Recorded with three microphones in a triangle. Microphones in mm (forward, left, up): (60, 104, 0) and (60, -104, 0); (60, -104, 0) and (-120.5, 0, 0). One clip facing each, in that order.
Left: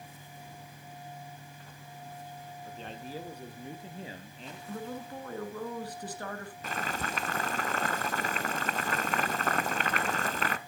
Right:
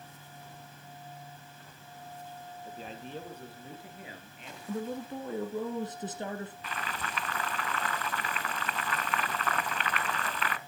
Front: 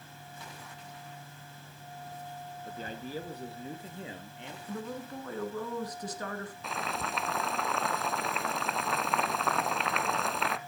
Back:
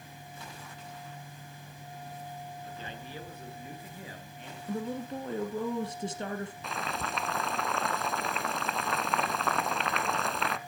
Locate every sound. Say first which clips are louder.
2.6 s a man speaking: left 1 dB, front 3 dB; 15° right, 1.6 m; by 4.6 s 40° left, 3 m
4.7 s a woman speaking: right 4 dB, back 5 dB; 150° right, 2.0 m
6.6 s boiling: left 4 dB, even; 60° left, 0.6 m